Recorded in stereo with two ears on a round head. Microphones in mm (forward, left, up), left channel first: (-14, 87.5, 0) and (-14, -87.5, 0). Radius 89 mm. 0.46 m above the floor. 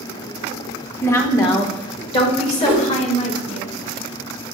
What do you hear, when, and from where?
1.0 s a woman speaking: 10° left (ahead or behind), 0.9 m; by 3.6 s 35° left (ahead or behind), 1.9 m
2.6 s a whoosh: 25° right (ahead or behind), 1.3 m